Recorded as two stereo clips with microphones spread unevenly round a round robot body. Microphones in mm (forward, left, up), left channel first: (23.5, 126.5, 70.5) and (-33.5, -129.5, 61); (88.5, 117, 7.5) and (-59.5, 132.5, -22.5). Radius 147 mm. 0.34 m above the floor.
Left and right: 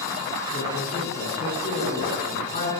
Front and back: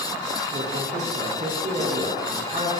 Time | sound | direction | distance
0.5 | a man speaking | 145° left | 7 m